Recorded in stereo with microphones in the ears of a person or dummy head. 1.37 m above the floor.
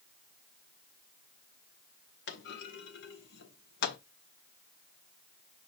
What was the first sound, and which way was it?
A clunk, 50° left (ahead or behind).